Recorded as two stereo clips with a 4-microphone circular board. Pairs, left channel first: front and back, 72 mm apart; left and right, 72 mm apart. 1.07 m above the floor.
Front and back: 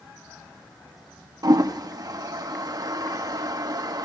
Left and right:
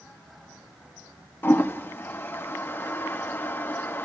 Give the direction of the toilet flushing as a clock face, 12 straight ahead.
7 o'clock.